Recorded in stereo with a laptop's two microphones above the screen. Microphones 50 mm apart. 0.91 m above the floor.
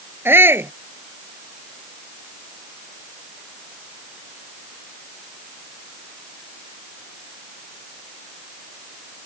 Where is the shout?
55° right (ahead or behind).